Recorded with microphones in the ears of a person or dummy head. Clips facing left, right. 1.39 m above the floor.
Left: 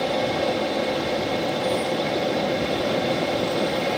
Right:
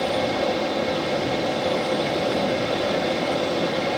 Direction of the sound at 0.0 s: 5° right (ahead or behind).